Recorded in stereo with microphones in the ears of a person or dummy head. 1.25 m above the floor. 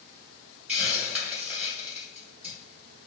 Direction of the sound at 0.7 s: 10° right (ahead or behind).